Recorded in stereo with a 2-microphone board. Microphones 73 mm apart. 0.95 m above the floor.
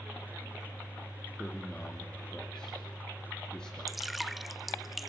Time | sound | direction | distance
1.4 | a man speaking | 10° left (ahead or behind) | 2.5 m
3.9 | dripping | centre (ahead or behind) | 0.8 m